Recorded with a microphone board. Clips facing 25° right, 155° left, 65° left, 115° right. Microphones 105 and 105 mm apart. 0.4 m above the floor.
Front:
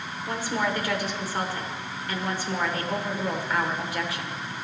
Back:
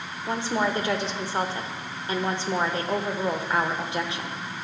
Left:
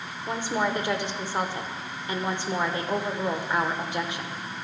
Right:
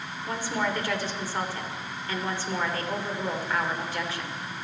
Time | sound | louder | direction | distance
0.3 | a woman speaking | back 2 dB, left 2 dB | 120° left | 0.9 m